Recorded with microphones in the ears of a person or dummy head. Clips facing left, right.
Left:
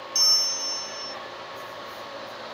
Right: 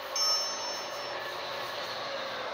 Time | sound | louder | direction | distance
0.1 | a bell | even | 15° left (ahead or behind) | ?